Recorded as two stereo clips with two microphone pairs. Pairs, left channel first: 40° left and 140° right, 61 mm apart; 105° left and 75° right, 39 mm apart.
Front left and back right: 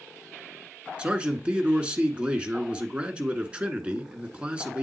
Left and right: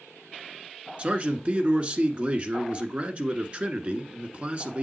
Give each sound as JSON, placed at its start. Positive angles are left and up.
{"t": 1.0, "sound": "a man speaking", "azimuth_deg": -85, "distance_m": 1.2}